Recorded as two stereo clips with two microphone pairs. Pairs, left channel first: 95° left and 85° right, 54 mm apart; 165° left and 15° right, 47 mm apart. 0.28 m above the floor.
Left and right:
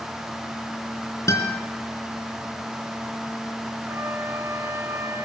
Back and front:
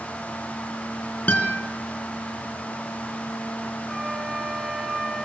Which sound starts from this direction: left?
A guitar, at 1.3 s.